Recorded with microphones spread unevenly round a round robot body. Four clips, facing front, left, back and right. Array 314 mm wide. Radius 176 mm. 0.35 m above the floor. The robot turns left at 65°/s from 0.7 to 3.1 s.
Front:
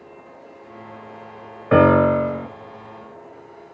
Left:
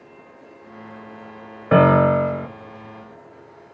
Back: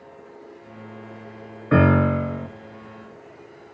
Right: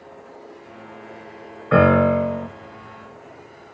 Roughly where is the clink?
I don't hear a clink.